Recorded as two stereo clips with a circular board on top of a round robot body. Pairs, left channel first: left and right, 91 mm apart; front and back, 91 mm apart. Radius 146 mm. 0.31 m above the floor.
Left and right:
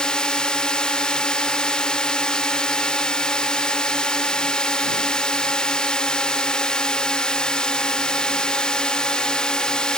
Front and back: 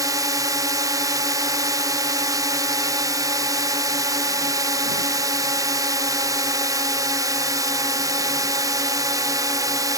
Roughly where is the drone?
Behind.